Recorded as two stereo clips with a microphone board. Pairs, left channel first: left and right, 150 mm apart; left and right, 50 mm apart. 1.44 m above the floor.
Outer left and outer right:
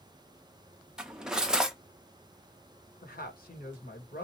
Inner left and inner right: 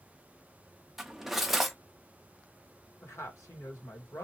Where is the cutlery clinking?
5° right (ahead or behind), 0.6 m.